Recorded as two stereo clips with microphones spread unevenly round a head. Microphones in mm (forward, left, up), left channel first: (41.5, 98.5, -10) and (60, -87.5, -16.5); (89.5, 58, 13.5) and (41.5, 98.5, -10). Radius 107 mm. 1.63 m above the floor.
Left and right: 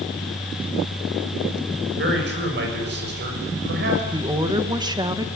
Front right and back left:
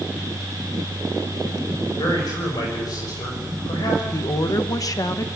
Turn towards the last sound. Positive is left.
turn(degrees=-15)